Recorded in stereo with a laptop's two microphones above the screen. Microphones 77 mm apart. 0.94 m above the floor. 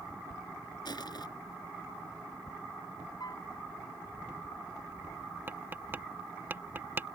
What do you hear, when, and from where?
0.8 s crushing: 65° left (ahead or behind)
3.2 s a piano: 55° left (ahead or behind)
5.5 s tapping: 25° right (ahead or behind)